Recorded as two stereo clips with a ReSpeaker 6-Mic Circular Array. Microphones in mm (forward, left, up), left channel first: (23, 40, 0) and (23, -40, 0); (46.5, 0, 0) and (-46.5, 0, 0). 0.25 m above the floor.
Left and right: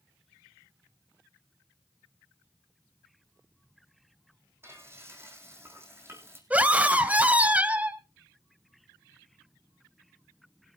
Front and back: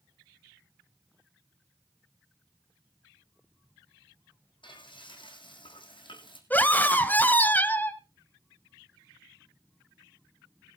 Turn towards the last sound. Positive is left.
turn(degrees=-45)